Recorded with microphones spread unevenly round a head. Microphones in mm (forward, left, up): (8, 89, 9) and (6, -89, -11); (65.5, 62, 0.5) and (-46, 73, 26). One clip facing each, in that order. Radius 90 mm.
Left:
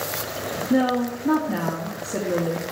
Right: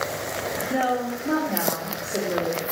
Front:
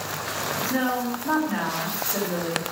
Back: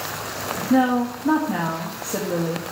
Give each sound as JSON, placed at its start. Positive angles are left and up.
{"t": 0.7, "sound": "a woman speaking", "azimuth_deg": 125, "distance_m": 2.0}